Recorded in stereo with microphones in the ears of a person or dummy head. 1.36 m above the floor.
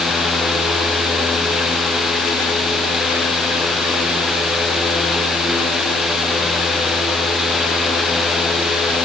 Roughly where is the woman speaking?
No woman speaking in this recording.